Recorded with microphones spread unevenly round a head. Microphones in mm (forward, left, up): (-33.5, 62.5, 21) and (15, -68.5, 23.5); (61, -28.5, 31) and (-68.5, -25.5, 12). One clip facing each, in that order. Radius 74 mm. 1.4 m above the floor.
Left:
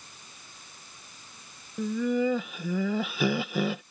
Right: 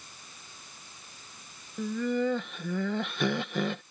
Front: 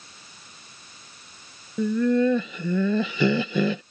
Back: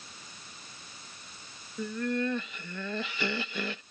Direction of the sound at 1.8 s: 25° left.